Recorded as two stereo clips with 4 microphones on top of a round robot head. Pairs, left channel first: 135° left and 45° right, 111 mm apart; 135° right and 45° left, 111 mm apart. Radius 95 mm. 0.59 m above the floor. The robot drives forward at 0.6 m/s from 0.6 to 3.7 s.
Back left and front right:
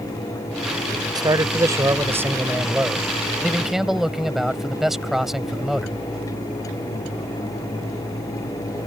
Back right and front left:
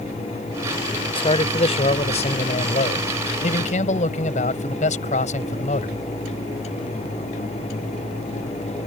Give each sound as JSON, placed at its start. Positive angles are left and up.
{"t": 1.1, "sound": "a man speaking", "azimuth_deg": -95}